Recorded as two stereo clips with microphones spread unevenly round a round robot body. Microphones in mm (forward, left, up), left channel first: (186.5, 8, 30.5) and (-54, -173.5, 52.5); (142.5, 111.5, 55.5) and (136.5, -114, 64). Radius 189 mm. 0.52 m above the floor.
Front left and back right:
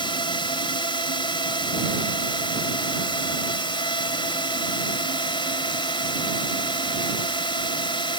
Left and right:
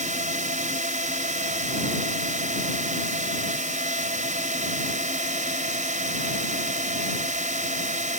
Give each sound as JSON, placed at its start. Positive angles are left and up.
{"t": 0.0, "sound": "a drone", "azimuth_deg": -35}